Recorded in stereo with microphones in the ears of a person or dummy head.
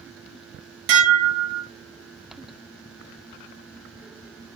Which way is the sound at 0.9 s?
60° right (ahead or behind).